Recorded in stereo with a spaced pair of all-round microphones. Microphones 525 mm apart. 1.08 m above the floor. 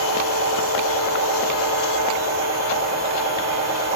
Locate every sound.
0.0 s a machine running: 30° right (ahead or behind), 1.8 m